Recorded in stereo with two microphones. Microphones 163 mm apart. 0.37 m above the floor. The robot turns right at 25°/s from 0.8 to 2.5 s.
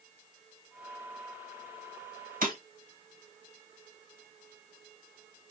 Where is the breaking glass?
60° right (ahead or behind), 1.1 m.